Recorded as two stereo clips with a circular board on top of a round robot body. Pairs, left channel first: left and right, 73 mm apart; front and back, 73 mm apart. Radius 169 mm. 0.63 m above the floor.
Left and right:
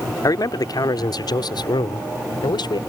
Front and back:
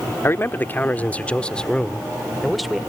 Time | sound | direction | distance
0.2 | a man speaking | 55° left | ?